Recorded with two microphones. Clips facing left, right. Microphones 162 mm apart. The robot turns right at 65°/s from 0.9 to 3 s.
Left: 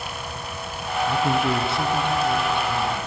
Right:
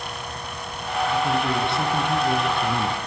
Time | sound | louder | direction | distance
1.1 | a man speaking | left 2 dB | 135° left | 2.5 m